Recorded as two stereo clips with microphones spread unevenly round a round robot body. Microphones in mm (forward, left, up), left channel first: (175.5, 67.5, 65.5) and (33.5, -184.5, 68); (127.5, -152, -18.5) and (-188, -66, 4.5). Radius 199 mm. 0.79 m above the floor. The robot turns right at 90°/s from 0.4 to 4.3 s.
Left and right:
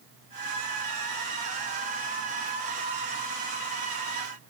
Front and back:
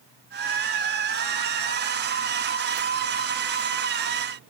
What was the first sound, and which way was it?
Only background noise.